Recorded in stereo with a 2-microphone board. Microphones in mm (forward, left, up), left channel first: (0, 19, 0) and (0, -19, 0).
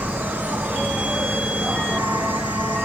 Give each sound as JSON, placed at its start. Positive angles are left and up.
{"t": 0.0, "sound": "an insect", "side_deg": -55, "distance_m": 0.9}